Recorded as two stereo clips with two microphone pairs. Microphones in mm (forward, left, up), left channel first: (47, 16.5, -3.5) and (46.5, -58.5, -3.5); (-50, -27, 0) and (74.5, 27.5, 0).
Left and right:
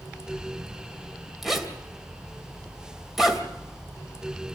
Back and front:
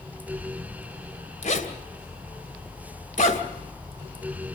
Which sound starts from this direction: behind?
A zipper, at 1.4 s.